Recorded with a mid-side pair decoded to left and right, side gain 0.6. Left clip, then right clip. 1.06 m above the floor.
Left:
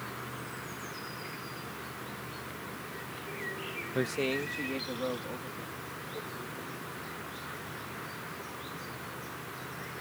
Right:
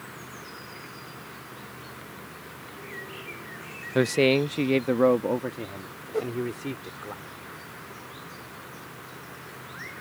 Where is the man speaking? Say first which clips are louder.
Right 11 dB; 45° right; by 7.1 s 75° right.